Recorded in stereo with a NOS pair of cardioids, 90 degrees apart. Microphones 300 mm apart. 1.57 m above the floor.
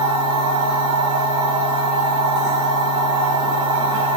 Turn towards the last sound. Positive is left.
turn(degrees=-60)